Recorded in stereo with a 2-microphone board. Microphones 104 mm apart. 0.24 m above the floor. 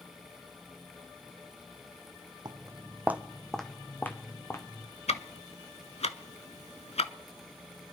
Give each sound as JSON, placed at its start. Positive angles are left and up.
{"t": 2.5, "sound": "footsteps", "side_deg": -40, "distance_m": 0.7}
{"t": 5.1, "sound": "ticking", "side_deg": 80, "distance_m": 0.6}